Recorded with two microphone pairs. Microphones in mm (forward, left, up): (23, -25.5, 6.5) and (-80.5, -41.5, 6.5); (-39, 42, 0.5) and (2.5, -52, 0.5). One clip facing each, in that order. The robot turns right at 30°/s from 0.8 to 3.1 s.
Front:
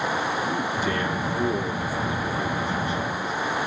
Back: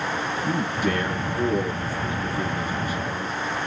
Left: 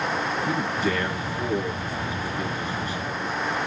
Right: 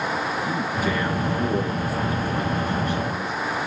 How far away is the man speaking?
About 3.5 m.